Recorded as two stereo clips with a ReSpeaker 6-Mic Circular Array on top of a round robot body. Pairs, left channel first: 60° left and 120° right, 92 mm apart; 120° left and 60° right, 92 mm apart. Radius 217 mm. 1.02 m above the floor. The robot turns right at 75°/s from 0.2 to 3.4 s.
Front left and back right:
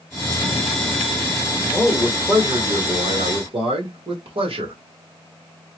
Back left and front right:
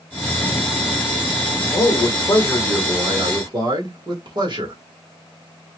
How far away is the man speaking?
About 2 m.